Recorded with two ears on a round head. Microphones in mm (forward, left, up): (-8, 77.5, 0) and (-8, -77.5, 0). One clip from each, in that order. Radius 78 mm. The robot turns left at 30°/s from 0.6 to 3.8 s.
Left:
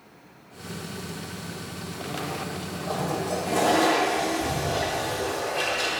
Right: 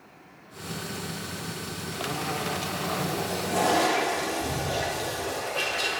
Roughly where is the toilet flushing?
Centre.